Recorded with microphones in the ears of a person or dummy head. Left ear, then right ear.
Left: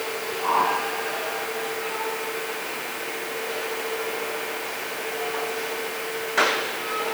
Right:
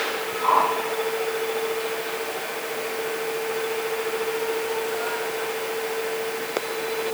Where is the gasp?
I don't hear a gasp.